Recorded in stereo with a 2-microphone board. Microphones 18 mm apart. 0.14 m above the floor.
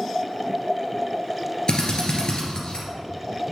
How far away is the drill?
About 2.5 m.